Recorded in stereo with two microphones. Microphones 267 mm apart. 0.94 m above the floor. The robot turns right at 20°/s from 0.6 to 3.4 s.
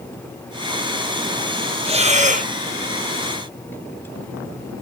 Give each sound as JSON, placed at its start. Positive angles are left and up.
{"t": 1.9, "sound": "breathing", "side_deg": -20, "distance_m": 1.0}